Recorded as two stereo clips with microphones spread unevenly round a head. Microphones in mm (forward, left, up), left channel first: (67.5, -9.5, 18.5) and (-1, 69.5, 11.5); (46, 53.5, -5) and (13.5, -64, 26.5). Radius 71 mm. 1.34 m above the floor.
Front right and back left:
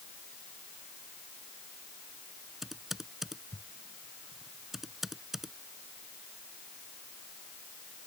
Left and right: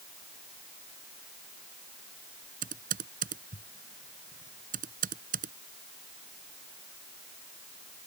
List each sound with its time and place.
2.6 s typing on a keyboard: 140° right